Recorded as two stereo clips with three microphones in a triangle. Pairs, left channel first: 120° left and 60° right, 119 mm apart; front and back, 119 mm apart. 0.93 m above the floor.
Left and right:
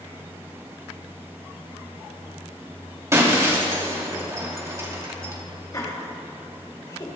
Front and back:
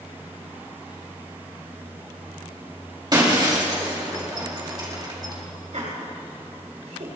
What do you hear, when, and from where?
3.1 s breaking glass: 125° right, 3 m
5.7 s laughter: 175° left, 3.5 m